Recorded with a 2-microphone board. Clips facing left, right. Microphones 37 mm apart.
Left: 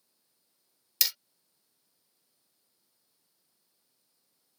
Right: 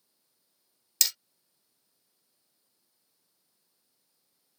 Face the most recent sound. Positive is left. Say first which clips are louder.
# right 1 dB
turn(degrees=10)  # may be behind; listen again after turning